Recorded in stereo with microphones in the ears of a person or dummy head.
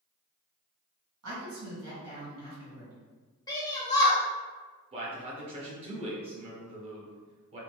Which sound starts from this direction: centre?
A shout, at 3.5 s.